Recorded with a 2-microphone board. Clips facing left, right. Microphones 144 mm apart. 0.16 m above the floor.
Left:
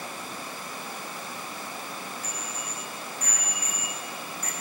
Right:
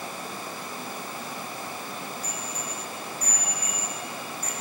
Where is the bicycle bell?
45° right (ahead or behind), 5 m; by 4.5 s 30° right (ahead or behind), 6.5 m.